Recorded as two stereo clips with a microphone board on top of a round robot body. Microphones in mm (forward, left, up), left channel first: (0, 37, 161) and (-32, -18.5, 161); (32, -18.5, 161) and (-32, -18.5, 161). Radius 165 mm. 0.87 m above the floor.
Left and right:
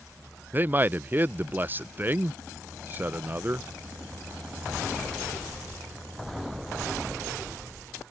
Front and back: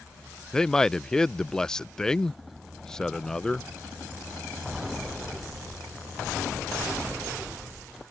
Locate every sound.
0.5 s a man speaking: 75° right